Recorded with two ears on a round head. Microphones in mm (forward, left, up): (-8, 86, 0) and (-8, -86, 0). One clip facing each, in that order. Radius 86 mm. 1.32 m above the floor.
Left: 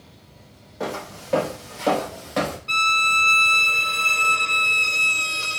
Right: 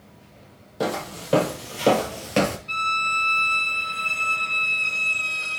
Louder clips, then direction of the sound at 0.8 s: Right 3 dB; 45° right (ahead or behind).